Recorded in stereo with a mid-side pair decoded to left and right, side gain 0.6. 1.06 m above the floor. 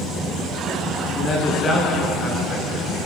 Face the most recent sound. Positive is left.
turn(degrees=35)